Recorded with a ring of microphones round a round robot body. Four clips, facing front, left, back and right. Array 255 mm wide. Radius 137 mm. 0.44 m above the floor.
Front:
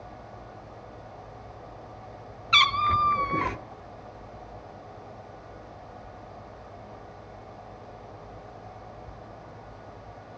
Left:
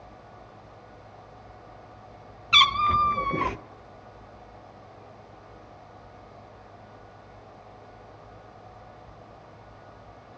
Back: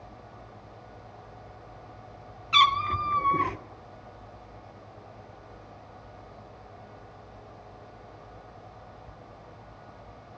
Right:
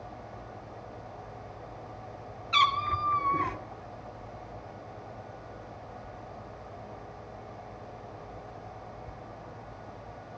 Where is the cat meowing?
55° left, 0.5 m.